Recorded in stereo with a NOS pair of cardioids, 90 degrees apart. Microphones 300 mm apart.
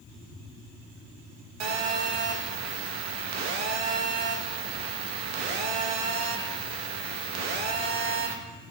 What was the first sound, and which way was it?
A phone buzzing, 70° right.